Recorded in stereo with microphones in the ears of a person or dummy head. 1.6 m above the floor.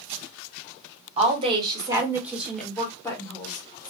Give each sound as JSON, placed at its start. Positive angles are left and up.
{"t": 1.2, "sound": "a woman speaking", "side_deg": -35, "distance_m": 1.3}